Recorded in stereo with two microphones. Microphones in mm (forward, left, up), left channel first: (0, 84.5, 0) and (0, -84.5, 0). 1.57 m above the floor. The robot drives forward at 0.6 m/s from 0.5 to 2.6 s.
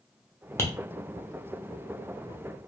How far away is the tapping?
About 0.6 m.